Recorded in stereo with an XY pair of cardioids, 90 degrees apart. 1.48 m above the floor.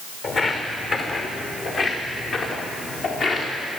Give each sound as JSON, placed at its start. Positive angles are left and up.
{"t": 0.2, "sound": "footsteps", "azimuth_deg": 65, "distance_m": 5.0}